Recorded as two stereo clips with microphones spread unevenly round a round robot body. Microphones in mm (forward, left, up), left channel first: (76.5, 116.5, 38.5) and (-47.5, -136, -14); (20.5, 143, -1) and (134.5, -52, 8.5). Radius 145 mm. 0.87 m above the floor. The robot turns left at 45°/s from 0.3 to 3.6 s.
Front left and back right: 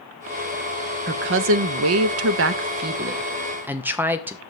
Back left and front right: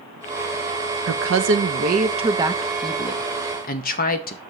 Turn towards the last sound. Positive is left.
turn(degrees=170)